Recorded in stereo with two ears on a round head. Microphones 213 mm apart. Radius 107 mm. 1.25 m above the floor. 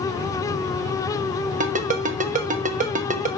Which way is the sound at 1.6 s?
30° right (ahead or behind).